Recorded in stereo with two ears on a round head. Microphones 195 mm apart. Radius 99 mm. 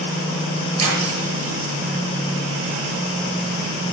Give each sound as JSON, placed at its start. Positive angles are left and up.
{"t": 0.8, "sound": "cutlery clinking", "side_deg": -30, "distance_m": 6.5}